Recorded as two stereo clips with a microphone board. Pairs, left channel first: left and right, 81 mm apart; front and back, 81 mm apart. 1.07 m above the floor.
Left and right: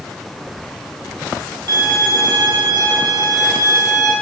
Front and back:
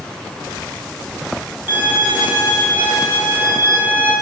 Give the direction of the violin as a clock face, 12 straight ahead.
4 o'clock.